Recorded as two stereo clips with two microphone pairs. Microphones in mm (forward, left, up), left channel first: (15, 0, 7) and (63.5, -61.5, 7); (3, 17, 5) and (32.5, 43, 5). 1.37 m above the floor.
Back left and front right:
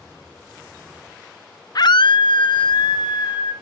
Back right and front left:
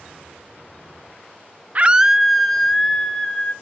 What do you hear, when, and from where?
1.8 s a scream: 90° left, 0.5 m; by 3.5 s 145° left, 2.5 m